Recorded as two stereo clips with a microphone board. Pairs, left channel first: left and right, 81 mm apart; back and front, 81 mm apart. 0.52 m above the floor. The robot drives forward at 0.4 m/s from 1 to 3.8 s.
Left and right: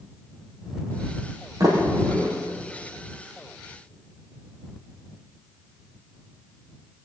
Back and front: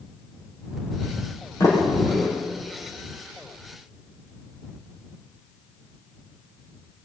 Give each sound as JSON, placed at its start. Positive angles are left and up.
{"t": 1.6, "sound": "a sliding door", "azimuth_deg": -130, "distance_m": 6.0}